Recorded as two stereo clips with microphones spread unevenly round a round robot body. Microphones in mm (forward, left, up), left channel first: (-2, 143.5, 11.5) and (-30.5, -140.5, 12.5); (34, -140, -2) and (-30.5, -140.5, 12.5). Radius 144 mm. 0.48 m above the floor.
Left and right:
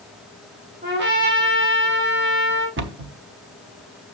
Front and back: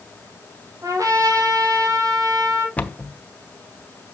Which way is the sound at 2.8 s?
55° right.